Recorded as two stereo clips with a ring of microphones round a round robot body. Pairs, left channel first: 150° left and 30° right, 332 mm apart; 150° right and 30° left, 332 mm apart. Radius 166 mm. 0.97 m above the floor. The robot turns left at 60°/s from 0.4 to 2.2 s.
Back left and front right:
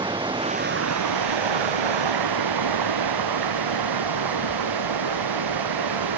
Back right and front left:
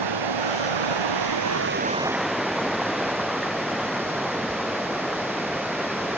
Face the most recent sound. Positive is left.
turn(degrees=-60)